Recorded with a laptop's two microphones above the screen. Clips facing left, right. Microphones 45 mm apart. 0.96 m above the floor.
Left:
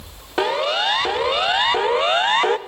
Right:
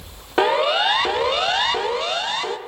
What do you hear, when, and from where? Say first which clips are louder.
0.4 s a siren: right 2 dB; 10° right (ahead or behind), 2 m; by 2.6 s 45° left (ahead or behind), 1.1 m